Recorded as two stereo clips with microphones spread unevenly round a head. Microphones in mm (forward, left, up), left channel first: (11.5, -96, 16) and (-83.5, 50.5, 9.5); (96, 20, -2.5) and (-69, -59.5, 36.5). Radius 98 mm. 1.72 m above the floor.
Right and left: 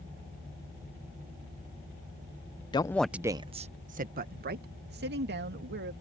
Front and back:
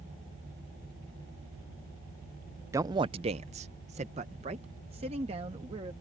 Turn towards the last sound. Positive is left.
turn(degrees=145)